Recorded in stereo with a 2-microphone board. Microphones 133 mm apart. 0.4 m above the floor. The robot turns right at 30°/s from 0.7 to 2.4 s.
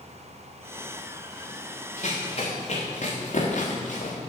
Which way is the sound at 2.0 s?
60° left (ahead or behind).